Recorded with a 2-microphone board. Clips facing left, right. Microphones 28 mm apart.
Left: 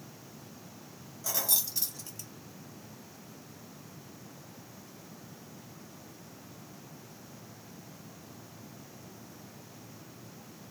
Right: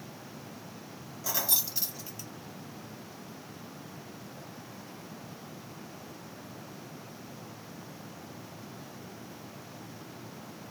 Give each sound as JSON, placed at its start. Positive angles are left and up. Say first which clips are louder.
{"t": 1.2, "sound": "keys jangling", "louder": "right 1 dB", "side_deg": -10, "distance_m": 1.0}